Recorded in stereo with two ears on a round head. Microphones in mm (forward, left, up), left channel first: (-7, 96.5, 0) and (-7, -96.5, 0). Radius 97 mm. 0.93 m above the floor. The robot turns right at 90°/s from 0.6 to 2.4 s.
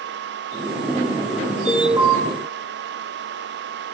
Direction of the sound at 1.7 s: 165° left.